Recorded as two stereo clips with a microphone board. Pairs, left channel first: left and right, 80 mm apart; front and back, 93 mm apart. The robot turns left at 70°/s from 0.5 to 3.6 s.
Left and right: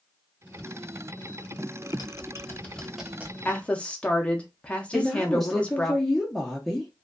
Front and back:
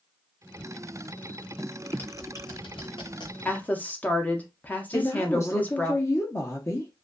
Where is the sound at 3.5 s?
50° left, 0.6 m; by 5.9 s 40° left, 0.6 m.